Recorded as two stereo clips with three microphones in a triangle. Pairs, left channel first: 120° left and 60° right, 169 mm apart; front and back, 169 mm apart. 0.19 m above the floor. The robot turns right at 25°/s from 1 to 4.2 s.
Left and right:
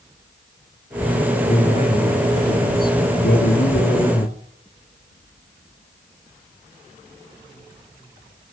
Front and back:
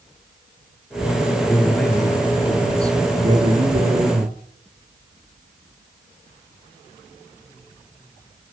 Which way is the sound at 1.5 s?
75° left.